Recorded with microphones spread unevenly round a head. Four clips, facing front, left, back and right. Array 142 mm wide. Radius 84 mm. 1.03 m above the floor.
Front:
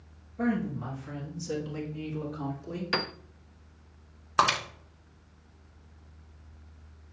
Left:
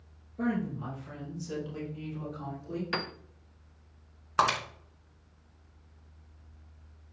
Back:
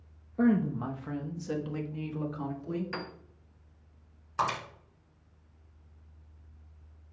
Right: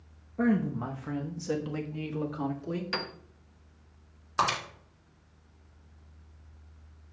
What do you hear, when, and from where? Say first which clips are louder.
0.4 s a woman speaking: right 4 dB, back 3 dB; 155° right, 0.8 m; by 2.8 s 90° right, 2 m
2.9 s a piano: left 1 dB, front 7 dB; straight ahead, 0.6 m
4.4 s breaking glass: left 2 dB, front 6 dB; 20° left, 2 m